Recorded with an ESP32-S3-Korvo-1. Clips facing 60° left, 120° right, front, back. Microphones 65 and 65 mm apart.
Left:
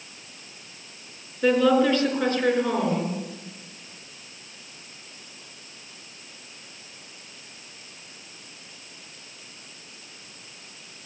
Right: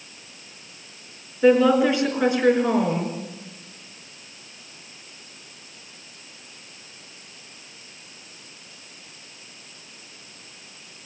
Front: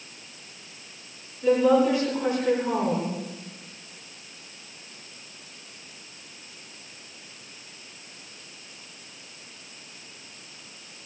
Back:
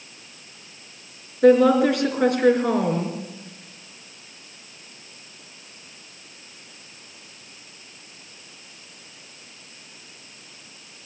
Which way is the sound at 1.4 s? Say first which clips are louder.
Right 3 dB, back 5 dB; 160° left.